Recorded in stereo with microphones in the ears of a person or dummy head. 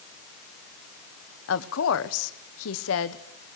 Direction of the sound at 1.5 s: 80° left.